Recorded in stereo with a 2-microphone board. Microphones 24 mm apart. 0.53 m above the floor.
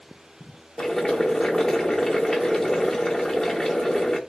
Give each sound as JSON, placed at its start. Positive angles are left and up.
{"t": 0.8, "sound": "boiling", "side_deg": 20, "distance_m": 0.7}